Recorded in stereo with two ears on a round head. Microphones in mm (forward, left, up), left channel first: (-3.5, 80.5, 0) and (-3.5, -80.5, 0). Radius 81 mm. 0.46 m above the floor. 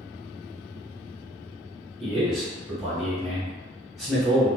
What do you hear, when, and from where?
2.0 s a man speaking: centre (ahead or behind), 1.2 m